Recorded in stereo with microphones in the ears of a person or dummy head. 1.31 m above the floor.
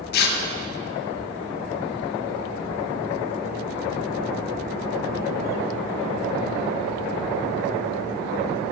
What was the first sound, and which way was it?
Tearing paper, 55° left (ahead or behind).